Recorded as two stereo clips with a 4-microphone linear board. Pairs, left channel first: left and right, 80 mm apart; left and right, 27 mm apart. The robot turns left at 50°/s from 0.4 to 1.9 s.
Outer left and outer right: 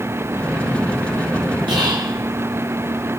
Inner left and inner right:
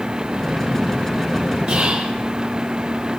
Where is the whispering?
75° right (ahead or behind), 3 m.